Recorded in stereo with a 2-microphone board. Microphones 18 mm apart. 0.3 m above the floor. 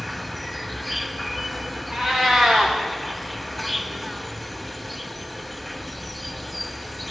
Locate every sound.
0.0 s an insect: 5° left (ahead or behind), 2.5 m
1.9 s a cat meowing: 20° right (ahead or behind), 8 m